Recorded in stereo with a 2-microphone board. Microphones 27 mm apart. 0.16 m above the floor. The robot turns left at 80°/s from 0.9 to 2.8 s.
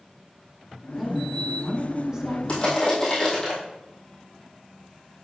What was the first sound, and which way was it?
A woman speaking, 5° right (ahead or behind).